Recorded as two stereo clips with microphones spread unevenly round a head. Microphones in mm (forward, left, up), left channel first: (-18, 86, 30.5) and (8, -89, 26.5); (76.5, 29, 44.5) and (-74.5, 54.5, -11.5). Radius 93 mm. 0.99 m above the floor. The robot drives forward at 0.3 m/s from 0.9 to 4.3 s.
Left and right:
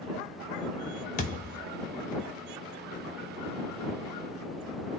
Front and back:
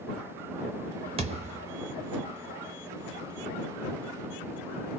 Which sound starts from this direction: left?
A thud, at 1.2 s.